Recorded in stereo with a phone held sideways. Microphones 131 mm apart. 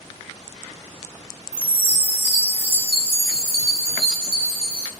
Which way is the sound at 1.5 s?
45° right (ahead or behind).